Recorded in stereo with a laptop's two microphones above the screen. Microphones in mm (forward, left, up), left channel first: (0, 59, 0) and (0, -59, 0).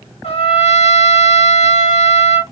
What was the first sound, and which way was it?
A trumpet, 60° left (ahead or behind).